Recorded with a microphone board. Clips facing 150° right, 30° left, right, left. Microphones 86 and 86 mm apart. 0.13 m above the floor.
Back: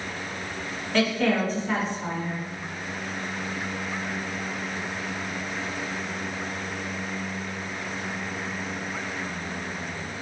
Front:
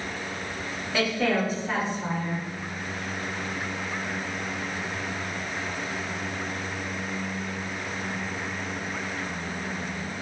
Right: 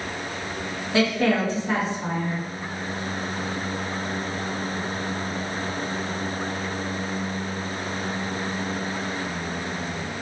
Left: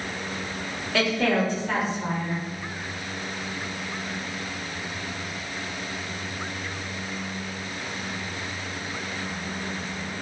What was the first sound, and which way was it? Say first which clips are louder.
A woman speaking: back 2 dB, right 2 dB; 50° right.